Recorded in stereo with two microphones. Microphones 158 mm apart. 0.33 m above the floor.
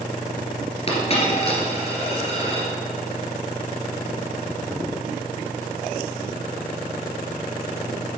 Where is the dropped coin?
40° left (ahead or behind), 2 m.